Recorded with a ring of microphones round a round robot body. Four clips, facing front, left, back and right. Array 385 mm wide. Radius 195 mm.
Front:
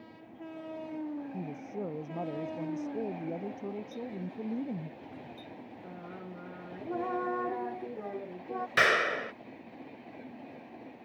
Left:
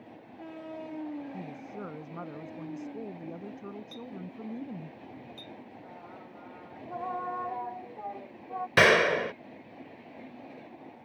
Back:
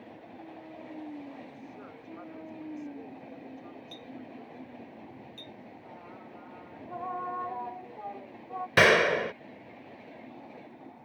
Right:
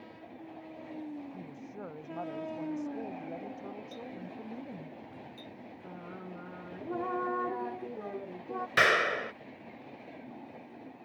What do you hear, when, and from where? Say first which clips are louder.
1.3 s a woman speaking: left 4 dB, front 7 dB; 25° left
3.9 s a clink: left 1 dB, front 5 dB; 160° left
5.8 s singing: right 2 dB, front 5 dB; 40° right
8.8 s a clap: left 5 dB, back 6 dB; 135° left